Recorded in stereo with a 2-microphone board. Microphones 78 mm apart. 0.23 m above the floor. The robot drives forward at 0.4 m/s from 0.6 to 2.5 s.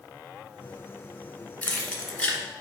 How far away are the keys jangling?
About 1.4 m.